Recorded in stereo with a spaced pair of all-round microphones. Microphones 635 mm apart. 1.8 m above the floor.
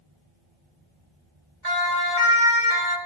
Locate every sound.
1.6 s a siren: 65° right (ahead or behind), 4.5 m; by 3.0 s 60° right (ahead or behind), 6 m